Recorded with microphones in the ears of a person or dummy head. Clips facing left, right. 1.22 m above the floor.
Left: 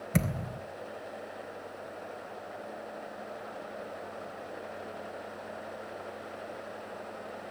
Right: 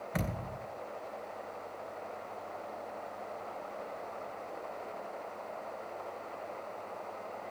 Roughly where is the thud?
Left.